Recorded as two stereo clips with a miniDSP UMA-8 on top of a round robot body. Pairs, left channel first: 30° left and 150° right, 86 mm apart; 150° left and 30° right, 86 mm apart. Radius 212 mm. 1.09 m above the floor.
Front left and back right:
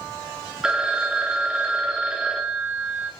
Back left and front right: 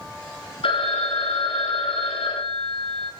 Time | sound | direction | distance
0.6 | a phone ringing | 130° left | 1.4 m